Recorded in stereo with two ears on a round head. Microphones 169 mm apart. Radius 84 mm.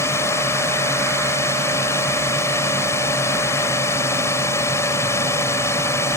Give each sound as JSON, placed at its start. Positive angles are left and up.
{"t": 0.0, "sound": "a drone", "side_deg": 15}